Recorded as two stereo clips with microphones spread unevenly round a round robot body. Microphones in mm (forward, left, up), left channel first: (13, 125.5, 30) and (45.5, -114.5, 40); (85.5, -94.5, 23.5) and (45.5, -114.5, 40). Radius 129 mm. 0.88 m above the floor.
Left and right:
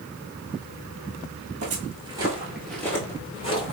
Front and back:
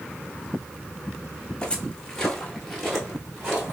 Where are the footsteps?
60° right, 0.9 m; by 3.7 s 160° left, 1.1 m.